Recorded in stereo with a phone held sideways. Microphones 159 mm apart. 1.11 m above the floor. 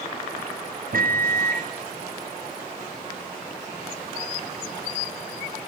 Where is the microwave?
65° right (ahead or behind), 0.5 m.